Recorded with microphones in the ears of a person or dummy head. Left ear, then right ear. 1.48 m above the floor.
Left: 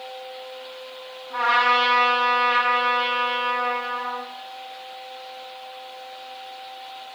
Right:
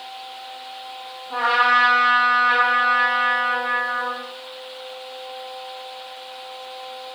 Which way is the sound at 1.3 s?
40° right (ahead or behind).